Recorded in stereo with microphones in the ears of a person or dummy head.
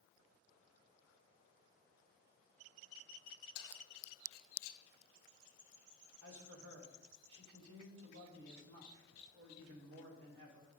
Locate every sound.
3.5 s keys jangling: 80° left, 1.3 m
6.2 s a man speaking: 80° right, 3.5 m